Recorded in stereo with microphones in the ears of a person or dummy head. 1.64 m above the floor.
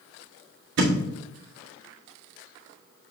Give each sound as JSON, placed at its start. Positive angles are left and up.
{"t": 0.8, "sound": "a thud", "side_deg": -65, "distance_m": 1.9}